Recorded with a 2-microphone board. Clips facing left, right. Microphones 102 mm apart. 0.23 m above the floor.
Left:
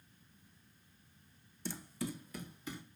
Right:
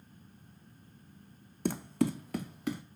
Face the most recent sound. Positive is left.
turn(degrees=-75)  # may be behind; listen again after turning